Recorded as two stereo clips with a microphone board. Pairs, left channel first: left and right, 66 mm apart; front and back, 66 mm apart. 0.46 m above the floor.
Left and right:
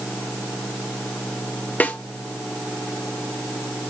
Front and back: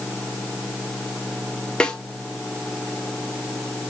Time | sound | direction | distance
1.8 | a snare drum | 55° left | 1.5 m